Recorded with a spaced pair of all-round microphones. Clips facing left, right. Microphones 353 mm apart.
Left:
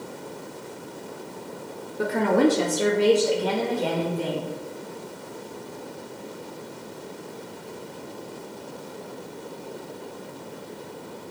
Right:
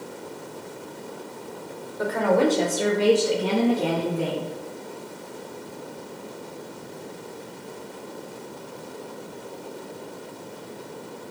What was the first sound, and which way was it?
A woman speaking, 35° left (ahead or behind).